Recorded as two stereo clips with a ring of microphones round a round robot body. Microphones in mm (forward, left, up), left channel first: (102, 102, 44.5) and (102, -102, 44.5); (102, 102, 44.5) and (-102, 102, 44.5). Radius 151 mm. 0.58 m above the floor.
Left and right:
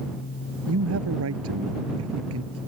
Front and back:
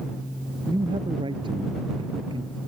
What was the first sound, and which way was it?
A man speaking, 105° right.